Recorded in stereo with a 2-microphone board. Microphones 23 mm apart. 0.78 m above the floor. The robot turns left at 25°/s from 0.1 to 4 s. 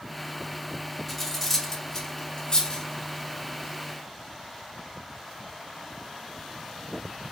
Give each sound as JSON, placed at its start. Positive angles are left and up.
{"t": 1.1, "sound": "cutlery clinking", "side_deg": 0, "distance_m": 0.9}